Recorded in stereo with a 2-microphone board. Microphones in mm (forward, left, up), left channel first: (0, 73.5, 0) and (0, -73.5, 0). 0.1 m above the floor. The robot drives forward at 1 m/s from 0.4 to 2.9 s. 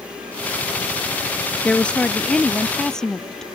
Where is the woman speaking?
10° left (ahead or behind); by 3.5 s 5° left (ahead or behind).